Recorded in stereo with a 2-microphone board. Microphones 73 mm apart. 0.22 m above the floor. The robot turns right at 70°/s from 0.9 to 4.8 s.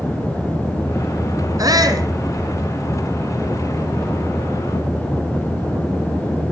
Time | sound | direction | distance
1.6 | a shout | 105° right | 2.5 m